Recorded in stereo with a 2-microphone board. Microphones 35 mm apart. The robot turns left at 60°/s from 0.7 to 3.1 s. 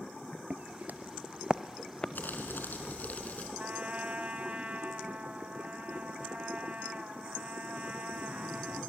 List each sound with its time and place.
0.5 s footsteps: 45° right (ahead or behind), 1.2 m; by 2.0 s 25° left (ahead or behind), 1.3 m
2.1 s crumpling: 110° left, 5 m; by 3.5 s 55° left, 5 m
3.6 s a trumpet: 45° right (ahead or behind), 1.8 m